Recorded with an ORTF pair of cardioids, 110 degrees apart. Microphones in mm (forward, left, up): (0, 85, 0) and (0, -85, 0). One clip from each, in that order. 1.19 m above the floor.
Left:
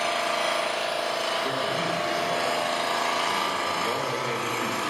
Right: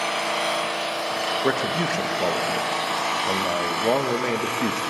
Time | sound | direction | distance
0.0 | an engine running | 10° right | 3.5 m
1.4 | a man speaking | 65° right | 1.6 m